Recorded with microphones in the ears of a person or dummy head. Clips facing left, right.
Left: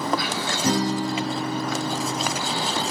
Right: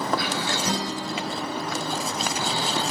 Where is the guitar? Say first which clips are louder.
Left 6 dB; 60° left (ahead or behind), 4 m.